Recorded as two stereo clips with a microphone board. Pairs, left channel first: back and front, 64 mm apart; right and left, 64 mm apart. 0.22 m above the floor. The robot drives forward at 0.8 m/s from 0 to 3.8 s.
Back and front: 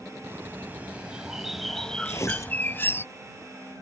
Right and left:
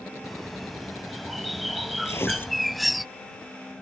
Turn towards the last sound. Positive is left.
turn(degrees=-165)